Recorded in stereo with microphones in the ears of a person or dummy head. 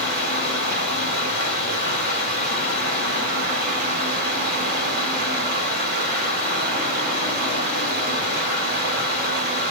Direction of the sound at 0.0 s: 50° right (ahead or behind).